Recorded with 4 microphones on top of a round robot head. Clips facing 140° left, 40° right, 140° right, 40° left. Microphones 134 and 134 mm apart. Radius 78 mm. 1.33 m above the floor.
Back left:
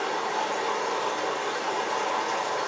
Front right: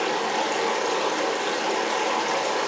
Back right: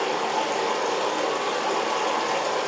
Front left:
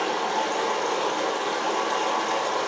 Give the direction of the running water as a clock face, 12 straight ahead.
2 o'clock.